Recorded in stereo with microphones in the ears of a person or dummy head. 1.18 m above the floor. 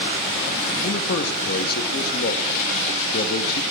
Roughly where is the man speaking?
Left.